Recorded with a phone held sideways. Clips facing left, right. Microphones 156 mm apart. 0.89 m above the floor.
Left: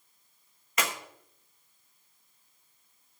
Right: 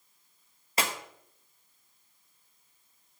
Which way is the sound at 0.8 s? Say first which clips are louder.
Right 1 dB; 30° right (ahead or behind).